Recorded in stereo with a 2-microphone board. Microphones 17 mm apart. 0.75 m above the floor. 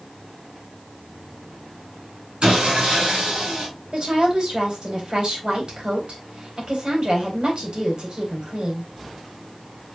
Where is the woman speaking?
55° right (ahead or behind), 4 m.